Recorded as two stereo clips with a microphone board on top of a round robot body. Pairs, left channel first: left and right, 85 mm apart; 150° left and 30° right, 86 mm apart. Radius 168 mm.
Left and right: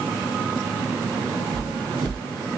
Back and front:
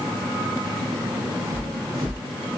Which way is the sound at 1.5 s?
80° right.